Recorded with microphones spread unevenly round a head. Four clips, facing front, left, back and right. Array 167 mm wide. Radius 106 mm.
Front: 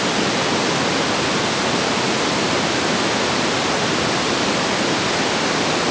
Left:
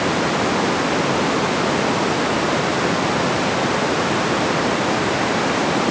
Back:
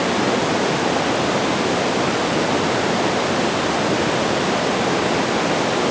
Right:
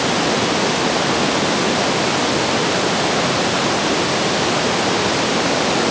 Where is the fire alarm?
I don't hear a fire alarm.